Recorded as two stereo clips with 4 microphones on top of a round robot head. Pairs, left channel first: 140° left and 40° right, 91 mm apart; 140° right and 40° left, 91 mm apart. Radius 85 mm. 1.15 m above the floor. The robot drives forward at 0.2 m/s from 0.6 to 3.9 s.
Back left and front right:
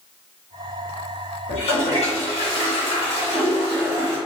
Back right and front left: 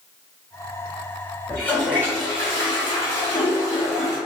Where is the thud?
No thud in this recording.